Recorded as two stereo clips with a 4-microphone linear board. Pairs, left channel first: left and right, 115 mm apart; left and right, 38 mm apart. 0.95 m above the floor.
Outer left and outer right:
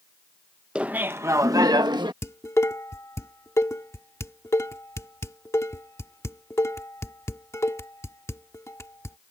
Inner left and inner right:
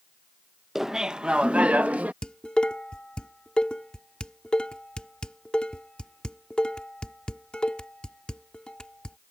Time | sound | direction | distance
0.8 | laughter | 5° right (ahead or behind) | ?
2.2 | dishes clattering | 25° left (ahead or behind) | ?